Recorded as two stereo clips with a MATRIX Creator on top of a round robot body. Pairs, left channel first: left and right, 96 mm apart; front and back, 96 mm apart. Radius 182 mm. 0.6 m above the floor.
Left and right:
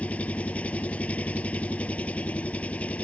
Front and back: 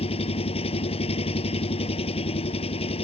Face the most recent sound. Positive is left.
turn(degrees=15)